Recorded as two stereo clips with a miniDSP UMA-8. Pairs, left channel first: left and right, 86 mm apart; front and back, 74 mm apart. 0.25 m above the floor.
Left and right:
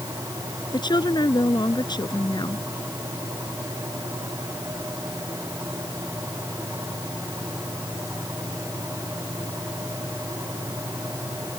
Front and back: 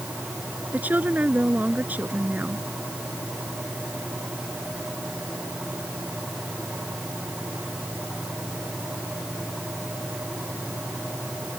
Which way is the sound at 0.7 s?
115° left.